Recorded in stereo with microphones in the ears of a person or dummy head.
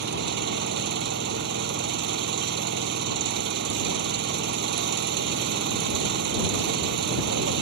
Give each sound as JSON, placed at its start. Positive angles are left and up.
{"t": 0.0, "sound": "an engine running", "side_deg": -60}